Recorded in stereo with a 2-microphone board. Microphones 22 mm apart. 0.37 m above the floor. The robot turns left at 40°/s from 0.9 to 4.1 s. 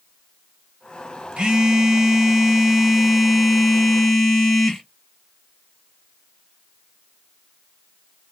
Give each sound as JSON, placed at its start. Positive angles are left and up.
{"t": 1.4, "sound": "a phone buzzing", "azimuth_deg": -105, "distance_m": 2.5}